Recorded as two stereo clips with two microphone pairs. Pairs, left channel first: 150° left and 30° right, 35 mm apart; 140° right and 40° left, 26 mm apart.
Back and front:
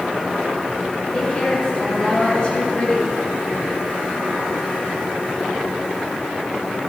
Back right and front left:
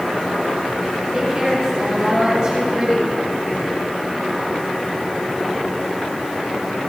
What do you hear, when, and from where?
1.1 s a woman speaking: 100° left, 5 m